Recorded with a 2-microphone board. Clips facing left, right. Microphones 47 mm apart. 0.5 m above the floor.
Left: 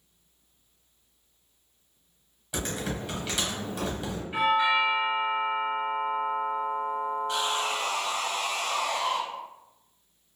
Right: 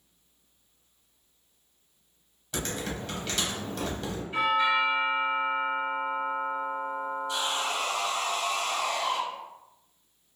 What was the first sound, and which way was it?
Typing on a keyboard, 10° left (ahead or behind).